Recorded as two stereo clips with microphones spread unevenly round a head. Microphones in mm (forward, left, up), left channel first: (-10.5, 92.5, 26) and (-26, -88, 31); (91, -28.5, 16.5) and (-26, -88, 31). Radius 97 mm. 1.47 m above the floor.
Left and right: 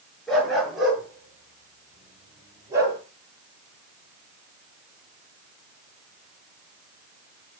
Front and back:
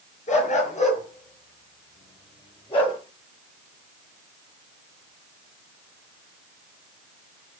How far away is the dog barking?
About 6.5 m.